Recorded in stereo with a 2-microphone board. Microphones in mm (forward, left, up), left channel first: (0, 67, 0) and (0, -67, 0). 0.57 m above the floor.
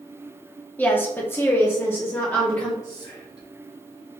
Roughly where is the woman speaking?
Centre.